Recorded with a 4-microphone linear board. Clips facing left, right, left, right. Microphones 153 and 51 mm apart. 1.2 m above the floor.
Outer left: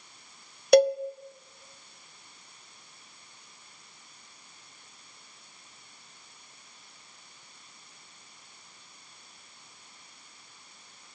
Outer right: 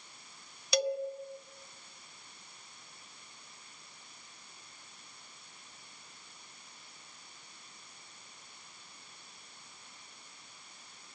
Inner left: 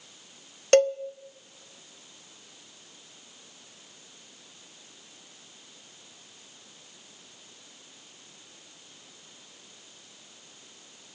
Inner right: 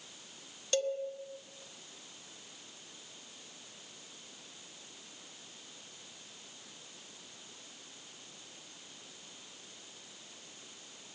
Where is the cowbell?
55° left (ahead or behind), 0.6 m.